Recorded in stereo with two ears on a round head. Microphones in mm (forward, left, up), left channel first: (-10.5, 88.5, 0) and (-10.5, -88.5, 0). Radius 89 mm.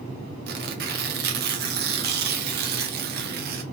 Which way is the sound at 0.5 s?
50° right (ahead or behind).